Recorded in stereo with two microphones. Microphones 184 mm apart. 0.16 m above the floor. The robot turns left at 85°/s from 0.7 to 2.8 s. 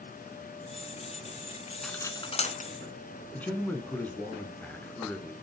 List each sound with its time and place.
1.8 s cutlery clinking: centre (ahead or behind), 1.1 m; by 2.7 s 45° left (ahead or behind), 1.1 m
3.3 s a man speaking: 10° left (ahead or behind), 1.7 m